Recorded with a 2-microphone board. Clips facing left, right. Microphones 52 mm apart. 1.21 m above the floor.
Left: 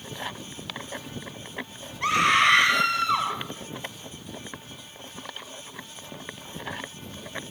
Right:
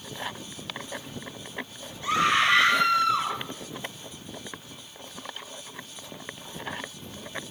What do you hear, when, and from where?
2.0 s a scream: 80° left, 6 m